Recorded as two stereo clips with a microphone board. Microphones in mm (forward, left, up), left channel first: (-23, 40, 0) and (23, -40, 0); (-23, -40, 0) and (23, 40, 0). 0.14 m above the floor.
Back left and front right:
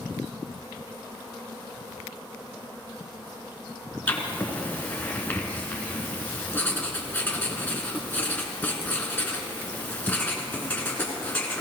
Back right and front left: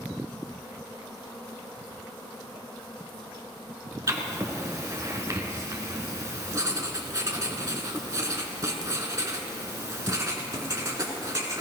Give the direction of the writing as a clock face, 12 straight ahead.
10 o'clock.